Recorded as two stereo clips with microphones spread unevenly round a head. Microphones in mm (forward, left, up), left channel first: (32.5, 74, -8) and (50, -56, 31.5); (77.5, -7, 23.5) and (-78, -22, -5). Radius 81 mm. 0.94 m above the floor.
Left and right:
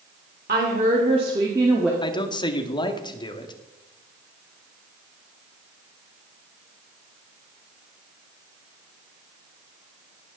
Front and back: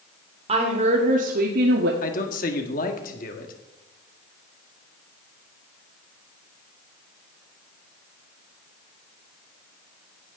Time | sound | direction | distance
0.5 | a woman speaking | 125° right | 2.5 m
2.0 | a man speaking | 50° left | 2.0 m